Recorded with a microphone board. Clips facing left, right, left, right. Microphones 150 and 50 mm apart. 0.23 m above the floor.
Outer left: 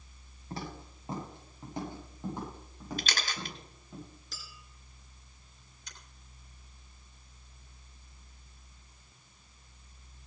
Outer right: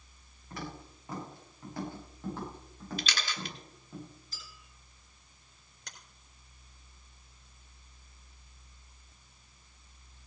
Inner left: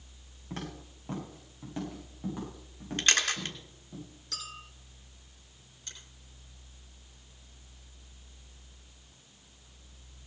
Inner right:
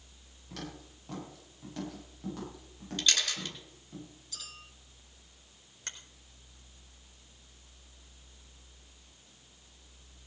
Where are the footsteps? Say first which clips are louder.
Outer left 1 dB, inner left 3 dB; 30° left (ahead or behind), 9 m; by 4.0 s 5° left (ahead or behind), 10.5 m.